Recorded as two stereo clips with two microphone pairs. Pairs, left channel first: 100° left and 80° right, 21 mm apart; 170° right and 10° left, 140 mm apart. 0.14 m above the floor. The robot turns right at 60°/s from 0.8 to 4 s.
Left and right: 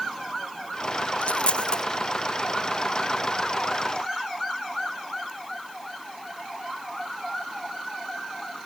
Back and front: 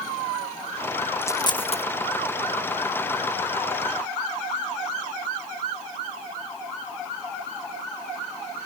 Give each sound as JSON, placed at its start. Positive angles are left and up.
{"t": 1.2, "sound": "a dropped coin", "azimuth_deg": 115}